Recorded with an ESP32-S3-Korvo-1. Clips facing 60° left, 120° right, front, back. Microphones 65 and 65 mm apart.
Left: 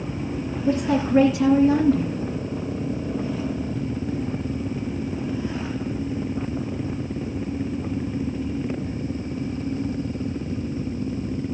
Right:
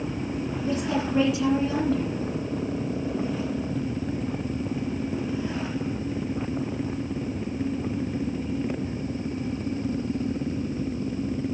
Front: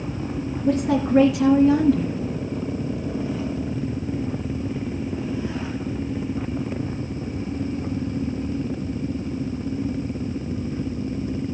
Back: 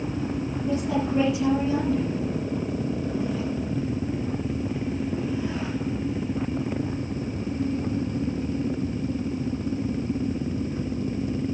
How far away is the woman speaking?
About 2.5 m.